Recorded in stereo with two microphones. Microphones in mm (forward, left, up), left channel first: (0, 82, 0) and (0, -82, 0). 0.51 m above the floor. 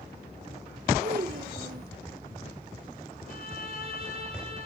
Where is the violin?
65° left (ahead or behind), 2.5 m.